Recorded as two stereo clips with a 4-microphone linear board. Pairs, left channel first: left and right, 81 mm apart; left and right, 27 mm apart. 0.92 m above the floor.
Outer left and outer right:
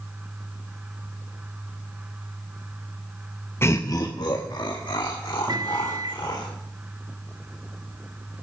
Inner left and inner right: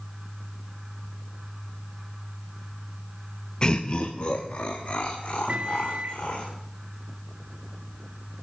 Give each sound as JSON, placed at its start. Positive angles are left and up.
{"t": 3.6, "sound": "laughter", "side_deg": 30, "distance_m": 0.6}
{"t": 5.5, "sound": "a microwave", "side_deg": -60, "distance_m": 1.8}